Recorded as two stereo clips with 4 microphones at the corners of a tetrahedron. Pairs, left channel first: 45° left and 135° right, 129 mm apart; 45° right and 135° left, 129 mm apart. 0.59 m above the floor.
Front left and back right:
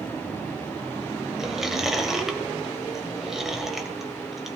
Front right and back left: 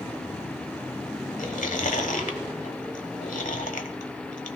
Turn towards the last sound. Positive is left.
turn(degrees=-50)